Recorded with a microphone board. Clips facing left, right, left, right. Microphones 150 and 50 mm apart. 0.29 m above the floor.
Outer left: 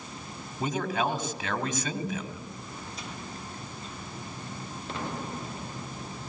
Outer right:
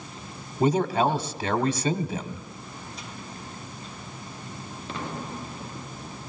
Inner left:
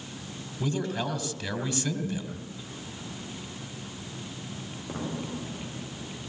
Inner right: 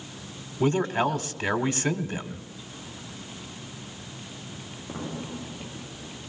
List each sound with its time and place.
0.6 s a man speaking: 35° right (ahead or behind), 1.9 m